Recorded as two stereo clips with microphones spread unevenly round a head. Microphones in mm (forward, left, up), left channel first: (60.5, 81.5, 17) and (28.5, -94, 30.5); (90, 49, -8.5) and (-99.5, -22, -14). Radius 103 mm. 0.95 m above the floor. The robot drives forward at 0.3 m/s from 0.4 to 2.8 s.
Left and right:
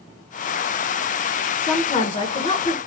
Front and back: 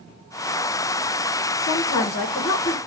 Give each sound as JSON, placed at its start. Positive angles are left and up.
{"t": 1.6, "sound": "a woman speaking", "azimuth_deg": 35, "distance_m": 0.8}